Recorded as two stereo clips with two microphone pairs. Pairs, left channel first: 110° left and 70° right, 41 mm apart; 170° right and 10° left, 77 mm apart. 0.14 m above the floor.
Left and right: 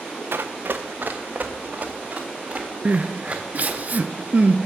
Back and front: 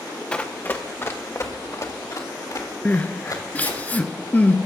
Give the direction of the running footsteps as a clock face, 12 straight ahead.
3 o'clock.